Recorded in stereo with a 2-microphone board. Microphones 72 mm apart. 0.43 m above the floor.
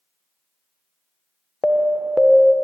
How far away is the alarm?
About 0.5 m.